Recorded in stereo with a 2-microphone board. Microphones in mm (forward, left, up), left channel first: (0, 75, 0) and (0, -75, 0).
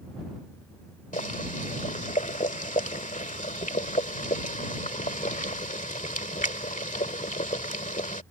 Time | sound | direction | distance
1.1 | boiling | 55° left (ahead or behind) | ?